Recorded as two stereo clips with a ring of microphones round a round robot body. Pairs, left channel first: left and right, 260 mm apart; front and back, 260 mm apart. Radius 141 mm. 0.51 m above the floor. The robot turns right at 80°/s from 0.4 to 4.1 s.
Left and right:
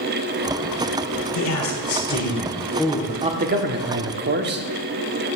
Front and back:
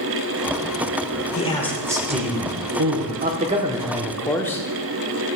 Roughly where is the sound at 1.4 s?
Ahead left.